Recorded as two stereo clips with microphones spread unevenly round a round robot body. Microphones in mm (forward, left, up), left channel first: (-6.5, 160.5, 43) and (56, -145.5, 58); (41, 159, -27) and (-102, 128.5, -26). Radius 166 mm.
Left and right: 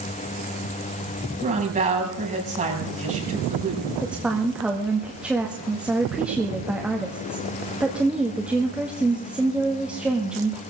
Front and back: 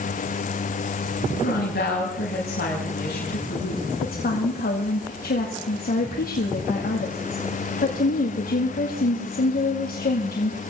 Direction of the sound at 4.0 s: 10° left.